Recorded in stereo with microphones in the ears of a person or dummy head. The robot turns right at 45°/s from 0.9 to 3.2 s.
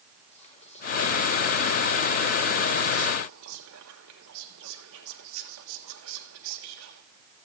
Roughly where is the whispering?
Behind left.